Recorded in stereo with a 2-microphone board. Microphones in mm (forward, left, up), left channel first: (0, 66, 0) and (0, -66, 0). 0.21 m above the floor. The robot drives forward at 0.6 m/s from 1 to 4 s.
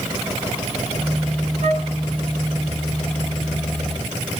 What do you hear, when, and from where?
1.6 s a flute: 70° right (ahead or behind), 0.6 m; by 1.9 s 65° right (ahead or behind), 0.6 m